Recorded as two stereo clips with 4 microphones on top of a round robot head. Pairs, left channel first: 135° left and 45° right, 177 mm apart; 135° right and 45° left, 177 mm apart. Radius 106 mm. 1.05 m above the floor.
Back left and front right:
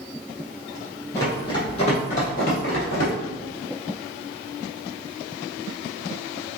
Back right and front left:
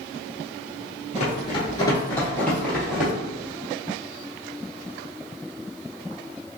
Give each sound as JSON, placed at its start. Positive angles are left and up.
{"t": 1.1, "sound": "running footsteps", "azimuth_deg": -155, "distance_m": 1.1}